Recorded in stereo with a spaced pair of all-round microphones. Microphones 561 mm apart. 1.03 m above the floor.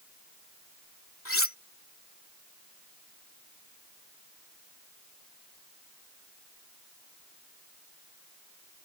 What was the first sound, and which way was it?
Cutlery clinking, 20° left (ahead or behind).